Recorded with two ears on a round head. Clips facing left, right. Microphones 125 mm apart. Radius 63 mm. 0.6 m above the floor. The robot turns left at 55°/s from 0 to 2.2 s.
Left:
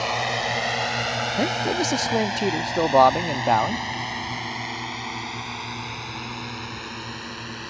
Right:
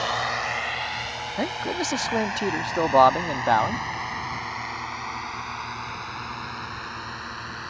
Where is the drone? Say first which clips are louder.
Left 2 dB; 10° left (ahead or behind); by 7.7 s 25° left (ahead or behind).